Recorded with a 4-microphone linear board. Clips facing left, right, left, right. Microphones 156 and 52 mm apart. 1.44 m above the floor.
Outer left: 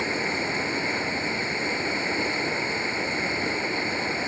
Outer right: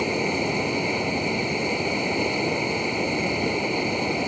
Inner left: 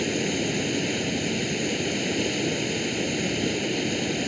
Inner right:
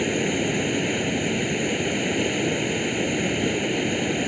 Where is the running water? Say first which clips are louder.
Outer right 4 dB, inner right 3 dB; 20° right (ahead or behind).